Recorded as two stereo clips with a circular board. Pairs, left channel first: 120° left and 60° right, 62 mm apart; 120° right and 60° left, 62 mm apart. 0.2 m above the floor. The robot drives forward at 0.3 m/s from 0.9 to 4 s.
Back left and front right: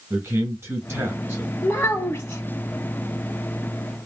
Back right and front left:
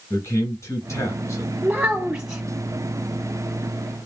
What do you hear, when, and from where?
0.1 s a man speaking: 90° right, 2 m; by 1.5 s 100° right, 2 m
1.6 s a child speaking: 105° left, 0.6 m; by 2.4 s 140° left, 0.7 m